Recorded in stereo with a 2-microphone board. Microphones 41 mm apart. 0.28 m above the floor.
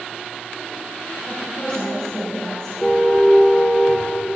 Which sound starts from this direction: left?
A woman speaking, at 1.3 s.